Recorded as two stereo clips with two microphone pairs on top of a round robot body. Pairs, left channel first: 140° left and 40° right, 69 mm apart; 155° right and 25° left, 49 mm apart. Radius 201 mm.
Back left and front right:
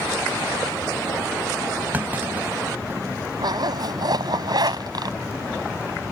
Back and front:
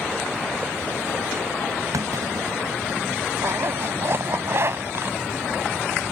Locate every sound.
1.9 s a clunk: 25° left
3.4 s a zipper: 15° right